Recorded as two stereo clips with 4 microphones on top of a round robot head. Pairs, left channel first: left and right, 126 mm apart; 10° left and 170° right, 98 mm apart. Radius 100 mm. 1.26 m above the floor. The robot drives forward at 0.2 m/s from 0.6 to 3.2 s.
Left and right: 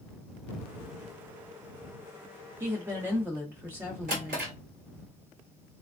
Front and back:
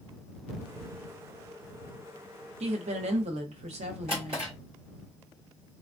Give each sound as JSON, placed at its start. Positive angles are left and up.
{"t": 2.6, "sound": "a woman speaking", "azimuth_deg": -165, "distance_m": 0.5}
{"t": 4.1, "sound": "a drawer", "azimuth_deg": -120, "distance_m": 1.3}